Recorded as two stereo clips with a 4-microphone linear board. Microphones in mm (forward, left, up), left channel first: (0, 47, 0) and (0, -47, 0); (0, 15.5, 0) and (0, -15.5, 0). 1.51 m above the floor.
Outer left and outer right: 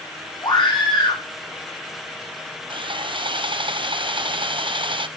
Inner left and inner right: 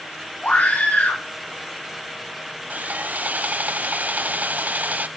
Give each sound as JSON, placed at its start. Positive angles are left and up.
{"t": 0.4, "sound": "a scream", "side_deg": 65, "distance_m": 3.5}
{"t": 2.7, "sound": "sawing", "side_deg": -65, "distance_m": 0.5}